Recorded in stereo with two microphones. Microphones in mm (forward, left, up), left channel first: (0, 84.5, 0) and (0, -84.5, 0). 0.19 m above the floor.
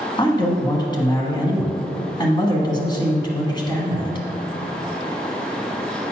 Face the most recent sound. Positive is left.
turn(degrees=25)  # may be behind; listen again after turning